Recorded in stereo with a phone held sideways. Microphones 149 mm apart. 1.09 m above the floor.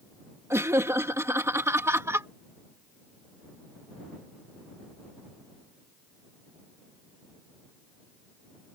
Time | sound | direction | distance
0.5 | laughter | 20° right (ahead or behind) | ?